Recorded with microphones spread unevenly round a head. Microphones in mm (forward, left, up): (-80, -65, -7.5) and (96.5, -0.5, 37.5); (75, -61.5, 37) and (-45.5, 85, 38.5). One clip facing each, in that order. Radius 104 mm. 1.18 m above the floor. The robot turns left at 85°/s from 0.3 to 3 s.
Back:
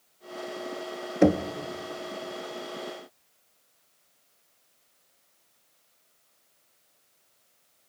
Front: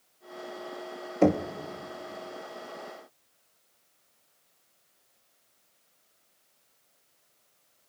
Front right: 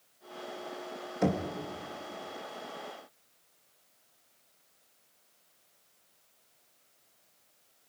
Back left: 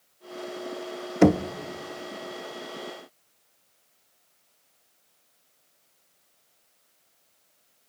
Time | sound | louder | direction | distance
1.2 | knocking | back 2 dB, back left 11 dB | 115° left | 0.9 m